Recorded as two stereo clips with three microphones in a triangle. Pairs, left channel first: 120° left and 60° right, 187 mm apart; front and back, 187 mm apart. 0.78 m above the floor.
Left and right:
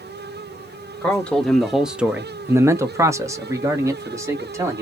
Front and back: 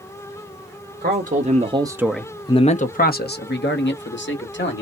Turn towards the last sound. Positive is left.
turn(degrees=15)